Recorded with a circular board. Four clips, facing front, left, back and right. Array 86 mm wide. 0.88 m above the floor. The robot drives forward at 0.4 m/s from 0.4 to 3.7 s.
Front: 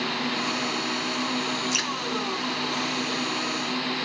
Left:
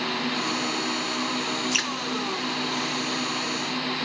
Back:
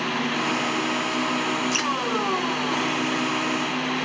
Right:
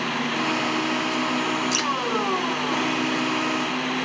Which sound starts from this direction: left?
Dripping, at 1.7 s.